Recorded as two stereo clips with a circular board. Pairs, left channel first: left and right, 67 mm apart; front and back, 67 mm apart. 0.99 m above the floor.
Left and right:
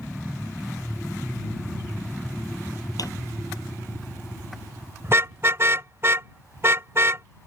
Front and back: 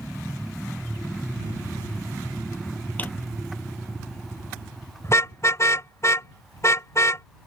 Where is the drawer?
65° left.